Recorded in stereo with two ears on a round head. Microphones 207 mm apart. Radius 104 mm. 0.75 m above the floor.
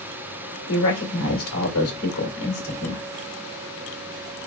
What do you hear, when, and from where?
0.7 s a woman speaking: 70° left (ahead or behind), 1.8 m